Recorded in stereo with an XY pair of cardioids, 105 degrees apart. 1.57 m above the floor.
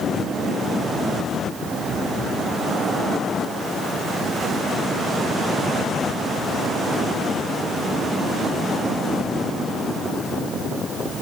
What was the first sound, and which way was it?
Only background noise.